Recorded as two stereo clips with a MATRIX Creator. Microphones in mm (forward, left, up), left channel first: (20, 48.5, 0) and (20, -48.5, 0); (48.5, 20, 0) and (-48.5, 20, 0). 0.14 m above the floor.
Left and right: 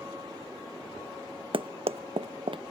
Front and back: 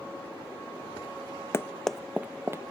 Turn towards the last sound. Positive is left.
turn(degrees=-120)